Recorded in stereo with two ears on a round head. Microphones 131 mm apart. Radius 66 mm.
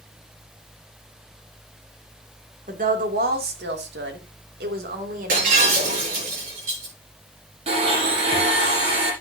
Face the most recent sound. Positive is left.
turn(degrees=-45)  # may be behind; listen again after turning